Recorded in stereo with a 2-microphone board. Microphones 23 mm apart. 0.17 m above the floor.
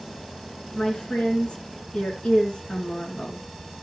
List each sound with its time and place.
0.8 s a woman speaking: 55° left (ahead or behind), 2.5 m